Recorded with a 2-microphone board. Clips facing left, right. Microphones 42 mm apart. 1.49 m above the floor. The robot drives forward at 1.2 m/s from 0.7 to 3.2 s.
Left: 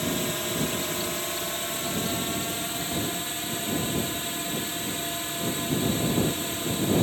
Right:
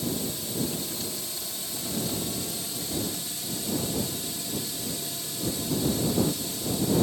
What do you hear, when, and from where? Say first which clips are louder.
0.0 s a drone: left 4 dB; 55° left (ahead or behind); by 7.0 s 40° left (ahead or behind)